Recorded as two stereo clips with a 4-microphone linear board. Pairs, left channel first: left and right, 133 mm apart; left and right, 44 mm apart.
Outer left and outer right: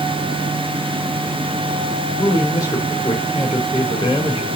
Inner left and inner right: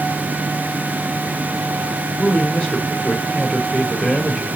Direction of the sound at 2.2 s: 30° left (ahead or behind).